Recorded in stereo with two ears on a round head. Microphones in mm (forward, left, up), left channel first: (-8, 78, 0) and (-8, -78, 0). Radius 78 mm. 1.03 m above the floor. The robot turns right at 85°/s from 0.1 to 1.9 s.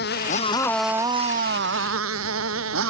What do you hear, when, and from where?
0.0 s a motorcycle: 120° left; by 2.9 s 90° right